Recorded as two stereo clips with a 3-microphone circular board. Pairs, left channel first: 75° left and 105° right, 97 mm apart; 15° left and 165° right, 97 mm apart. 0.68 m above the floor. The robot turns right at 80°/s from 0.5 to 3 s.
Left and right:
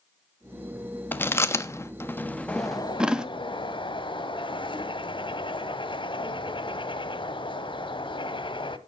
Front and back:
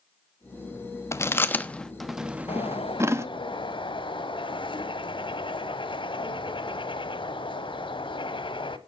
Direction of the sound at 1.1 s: 30° left.